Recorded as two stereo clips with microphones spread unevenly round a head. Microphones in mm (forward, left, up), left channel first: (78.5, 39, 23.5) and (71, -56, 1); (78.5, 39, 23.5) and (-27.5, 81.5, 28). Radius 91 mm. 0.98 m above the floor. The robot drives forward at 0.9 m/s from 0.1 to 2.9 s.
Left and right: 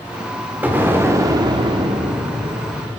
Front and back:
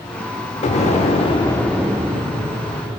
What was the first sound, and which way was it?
An explosion, 15° right.